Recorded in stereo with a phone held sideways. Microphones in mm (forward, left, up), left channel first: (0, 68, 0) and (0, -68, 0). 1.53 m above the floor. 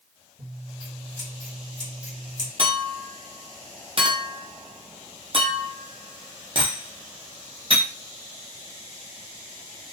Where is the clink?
40° right (ahead or behind), 0.7 m.